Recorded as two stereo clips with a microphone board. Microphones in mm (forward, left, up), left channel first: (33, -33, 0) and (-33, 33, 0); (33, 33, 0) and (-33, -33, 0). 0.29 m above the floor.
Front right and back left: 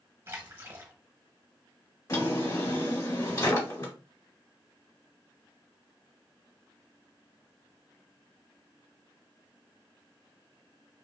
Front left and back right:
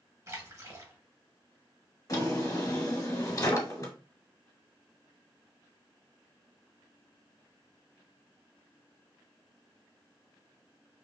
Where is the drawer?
Straight ahead, 0.9 m.